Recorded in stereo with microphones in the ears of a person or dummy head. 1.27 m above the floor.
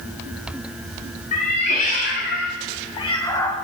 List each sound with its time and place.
1.3 s a cat meowing: 40° left (ahead or behind), 1.3 m; by 3.5 s 15° left (ahead or behind), 1.2 m